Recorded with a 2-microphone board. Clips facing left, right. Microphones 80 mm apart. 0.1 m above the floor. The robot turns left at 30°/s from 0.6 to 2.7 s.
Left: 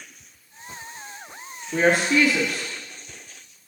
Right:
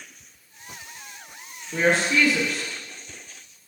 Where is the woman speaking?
15° left (ahead or behind), 1.5 m; by 2.6 s centre (ahead or behind), 1.5 m.